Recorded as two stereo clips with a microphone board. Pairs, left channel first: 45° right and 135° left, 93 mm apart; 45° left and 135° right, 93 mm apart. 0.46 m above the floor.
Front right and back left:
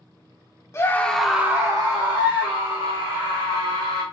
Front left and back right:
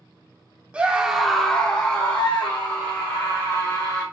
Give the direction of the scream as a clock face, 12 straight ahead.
2 o'clock.